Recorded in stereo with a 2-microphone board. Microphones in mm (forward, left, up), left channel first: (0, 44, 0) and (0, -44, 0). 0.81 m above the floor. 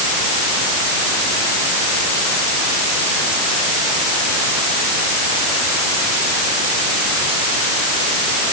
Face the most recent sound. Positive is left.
No sound to turn to.